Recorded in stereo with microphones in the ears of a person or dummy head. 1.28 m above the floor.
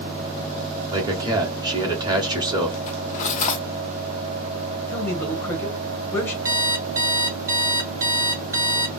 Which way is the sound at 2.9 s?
40° left (ahead or behind).